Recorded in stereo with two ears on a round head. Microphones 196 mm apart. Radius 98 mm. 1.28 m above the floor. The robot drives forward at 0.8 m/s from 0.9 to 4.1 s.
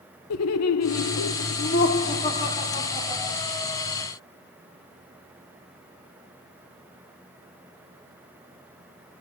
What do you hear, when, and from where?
0.3 s laughter: 75° left (ahead or behind), 0.6 m; by 3.4 s 15° left (ahead or behind), 1.9 m